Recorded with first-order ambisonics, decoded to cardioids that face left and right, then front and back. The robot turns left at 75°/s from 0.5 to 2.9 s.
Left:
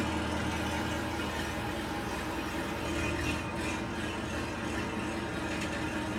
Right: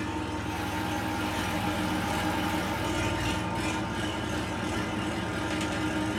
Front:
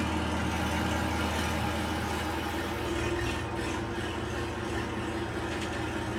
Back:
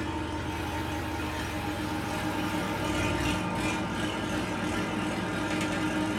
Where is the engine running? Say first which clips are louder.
Even, front 2 dB; 40° left, 1.7 m; by 6.2 s 140° right, 1.7 m.